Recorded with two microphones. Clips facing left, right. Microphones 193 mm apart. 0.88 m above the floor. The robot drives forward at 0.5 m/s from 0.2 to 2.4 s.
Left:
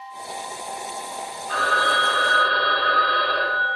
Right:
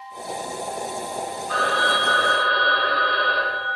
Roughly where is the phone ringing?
Centre.